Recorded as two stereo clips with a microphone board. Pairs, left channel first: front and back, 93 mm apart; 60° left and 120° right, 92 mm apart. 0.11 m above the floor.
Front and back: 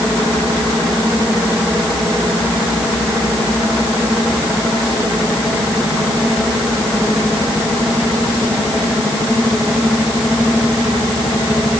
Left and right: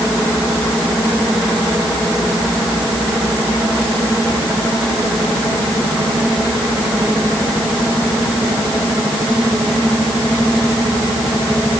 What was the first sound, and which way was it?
Only background noise.